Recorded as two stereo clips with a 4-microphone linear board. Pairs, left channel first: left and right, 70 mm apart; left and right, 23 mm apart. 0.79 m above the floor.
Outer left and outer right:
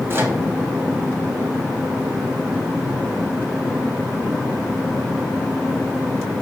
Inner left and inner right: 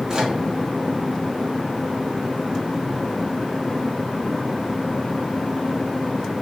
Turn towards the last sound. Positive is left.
turn(degrees=-35)  # may be behind; listen again after turning